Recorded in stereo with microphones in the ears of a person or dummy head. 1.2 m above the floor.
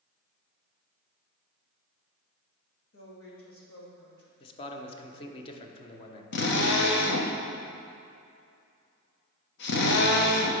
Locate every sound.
2.9 s a woman speaking: 70° left (ahead or behind), 2 m
4.4 s a man speaking: 25° left (ahead or behind), 0.9 m
6.3 s a drill: 55° left (ahead or behind), 1.0 m